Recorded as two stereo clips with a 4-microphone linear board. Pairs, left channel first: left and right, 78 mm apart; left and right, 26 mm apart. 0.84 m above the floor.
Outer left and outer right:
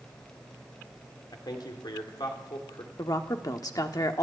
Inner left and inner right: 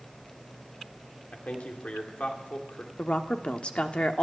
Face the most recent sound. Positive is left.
turn(degrees=50)  # may be behind; listen again after turning